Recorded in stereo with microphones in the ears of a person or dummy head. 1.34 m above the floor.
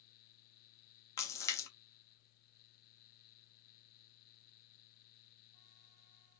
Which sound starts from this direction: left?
A splash, at 1.2 s.